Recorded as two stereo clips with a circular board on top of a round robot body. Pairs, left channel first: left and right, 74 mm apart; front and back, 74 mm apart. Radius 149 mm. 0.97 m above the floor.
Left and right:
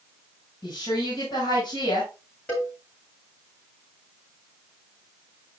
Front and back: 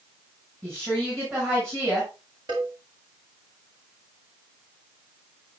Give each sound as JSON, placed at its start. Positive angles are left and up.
{"t": 0.6, "sound": "a woman speaking", "azimuth_deg": 120, "distance_m": 5.5}
{"t": 2.5, "sound": "a cowbell", "azimuth_deg": 160, "distance_m": 6.0}